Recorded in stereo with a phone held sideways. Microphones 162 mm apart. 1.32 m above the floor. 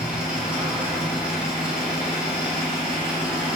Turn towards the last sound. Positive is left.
turn(degrees=-5)  # may be behind; listen again after turning